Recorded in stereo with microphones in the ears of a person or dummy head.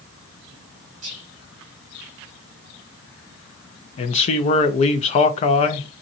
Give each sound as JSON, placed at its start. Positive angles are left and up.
{"t": 1.0, "sound": "whispering", "side_deg": -35, "distance_m": 0.9}
{"t": 4.0, "sound": "a man speaking", "side_deg": 35, "distance_m": 0.5}